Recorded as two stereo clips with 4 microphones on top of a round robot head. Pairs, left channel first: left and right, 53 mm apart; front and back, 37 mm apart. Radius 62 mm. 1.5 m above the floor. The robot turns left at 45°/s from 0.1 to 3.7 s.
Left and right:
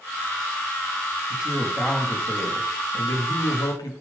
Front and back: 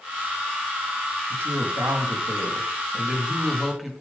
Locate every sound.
1.3 s a woman speaking: 160° right, 3 m; by 3.9 s 95° left, 3 m